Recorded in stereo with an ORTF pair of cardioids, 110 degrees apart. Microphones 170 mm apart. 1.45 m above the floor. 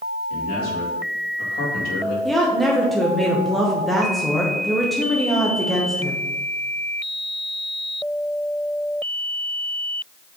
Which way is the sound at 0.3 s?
60° left.